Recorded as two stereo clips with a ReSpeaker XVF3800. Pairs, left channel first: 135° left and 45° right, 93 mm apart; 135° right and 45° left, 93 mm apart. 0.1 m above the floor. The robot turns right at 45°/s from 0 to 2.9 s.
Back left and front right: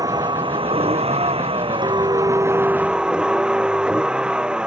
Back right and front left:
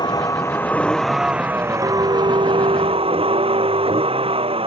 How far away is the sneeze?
No sneeze in this recording.